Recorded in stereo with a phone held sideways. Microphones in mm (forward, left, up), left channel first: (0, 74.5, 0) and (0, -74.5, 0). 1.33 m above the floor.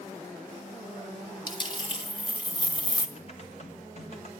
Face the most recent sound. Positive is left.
turn(degrees=45)  # may be behind; listen again after turning